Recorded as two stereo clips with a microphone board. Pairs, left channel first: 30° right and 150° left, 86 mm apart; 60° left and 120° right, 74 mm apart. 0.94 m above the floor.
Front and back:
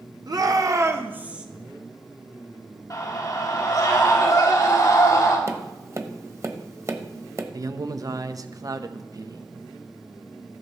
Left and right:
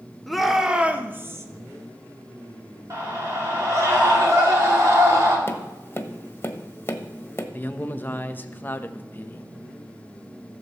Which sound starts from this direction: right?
A scream, at 2.9 s.